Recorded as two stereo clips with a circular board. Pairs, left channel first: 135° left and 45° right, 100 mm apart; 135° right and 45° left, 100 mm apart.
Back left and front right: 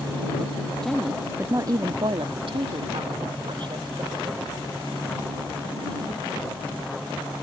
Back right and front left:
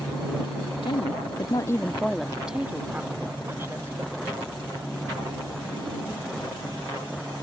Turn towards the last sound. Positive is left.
turn(degrees=-15)